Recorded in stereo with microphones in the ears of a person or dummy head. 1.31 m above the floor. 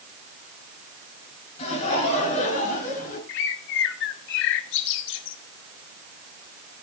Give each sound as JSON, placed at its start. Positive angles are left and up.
{"t": 1.6, "sound": "laughter", "side_deg": 35, "distance_m": 8.5}
{"t": 3.3, "sound": "a bird", "side_deg": 65, "distance_m": 1.0}